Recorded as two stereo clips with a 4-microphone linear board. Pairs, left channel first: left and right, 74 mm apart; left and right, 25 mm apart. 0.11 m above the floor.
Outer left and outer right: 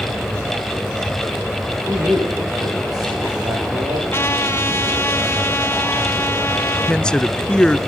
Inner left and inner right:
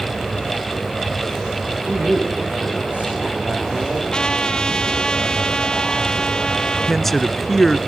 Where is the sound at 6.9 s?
15° left (ahead or behind), 1.1 m.